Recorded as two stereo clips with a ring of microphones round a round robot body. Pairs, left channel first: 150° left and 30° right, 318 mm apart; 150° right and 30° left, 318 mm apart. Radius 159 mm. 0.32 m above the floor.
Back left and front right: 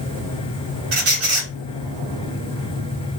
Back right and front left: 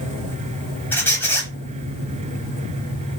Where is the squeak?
70° right, 0.8 m.